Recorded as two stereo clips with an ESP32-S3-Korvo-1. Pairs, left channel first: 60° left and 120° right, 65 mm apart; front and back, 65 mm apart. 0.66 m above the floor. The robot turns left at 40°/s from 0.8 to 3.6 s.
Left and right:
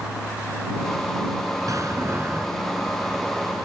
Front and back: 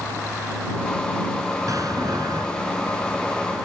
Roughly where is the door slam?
Behind right.